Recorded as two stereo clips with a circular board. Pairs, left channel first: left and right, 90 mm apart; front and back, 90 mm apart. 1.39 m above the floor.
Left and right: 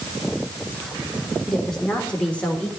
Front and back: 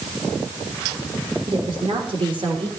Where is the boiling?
No boiling in this recording.